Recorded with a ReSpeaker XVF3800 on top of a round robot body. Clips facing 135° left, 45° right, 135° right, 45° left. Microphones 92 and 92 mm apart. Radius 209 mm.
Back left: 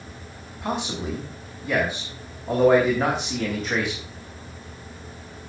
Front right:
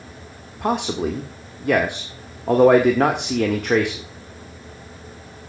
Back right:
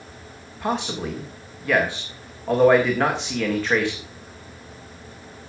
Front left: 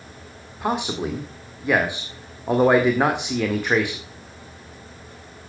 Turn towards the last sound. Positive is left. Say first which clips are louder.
# front right 6 dB, front left 1 dB
turn(degrees=-30)